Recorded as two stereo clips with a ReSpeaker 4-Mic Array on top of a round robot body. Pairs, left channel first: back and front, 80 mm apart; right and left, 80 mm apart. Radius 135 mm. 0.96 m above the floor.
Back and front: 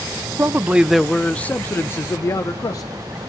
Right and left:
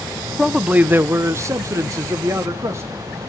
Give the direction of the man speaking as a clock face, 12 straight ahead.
12 o'clock.